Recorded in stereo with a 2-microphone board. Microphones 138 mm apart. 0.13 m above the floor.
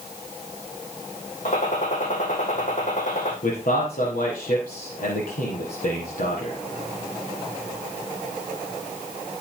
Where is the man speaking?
75° left (ahead or behind), 4.5 m.